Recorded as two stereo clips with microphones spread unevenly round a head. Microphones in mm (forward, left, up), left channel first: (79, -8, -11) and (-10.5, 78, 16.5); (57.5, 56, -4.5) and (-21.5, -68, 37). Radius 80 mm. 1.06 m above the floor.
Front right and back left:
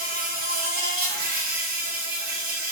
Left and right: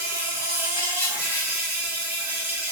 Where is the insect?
150° left, 1.1 m.